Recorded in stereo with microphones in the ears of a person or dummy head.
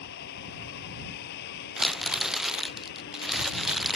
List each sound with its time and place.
0.0 s a vehicle: 60° left (ahead or behind)
1.8 s crumpling: centre (ahead or behind)